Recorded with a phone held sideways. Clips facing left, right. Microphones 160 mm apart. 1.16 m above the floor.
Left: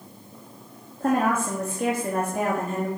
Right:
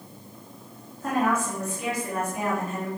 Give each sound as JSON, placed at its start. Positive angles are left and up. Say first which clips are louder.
{"t": 1.0, "sound": "a woman speaking", "louder": "left 3 dB", "side_deg": 55, "distance_m": 2.0}